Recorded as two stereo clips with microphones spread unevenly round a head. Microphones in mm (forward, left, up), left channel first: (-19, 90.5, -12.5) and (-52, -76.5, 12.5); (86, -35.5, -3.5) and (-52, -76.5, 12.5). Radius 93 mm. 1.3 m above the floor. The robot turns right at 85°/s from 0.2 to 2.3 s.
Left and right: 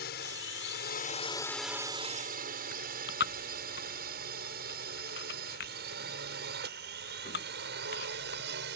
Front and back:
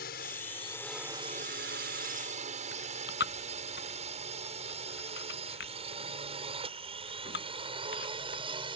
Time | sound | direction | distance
0.0 | a drone | 40° left | ?
2.7 | chewing | 40° left | ?